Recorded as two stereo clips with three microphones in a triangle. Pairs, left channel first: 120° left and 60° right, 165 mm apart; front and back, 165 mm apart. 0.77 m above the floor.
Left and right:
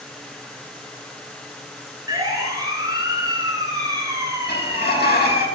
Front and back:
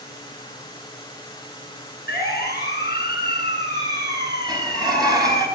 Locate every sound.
2.1 s a siren: 10° left, 8 m; by 5.5 s 15° left, 6.5 m
4.5 s a sliding door: 115° left, 5 m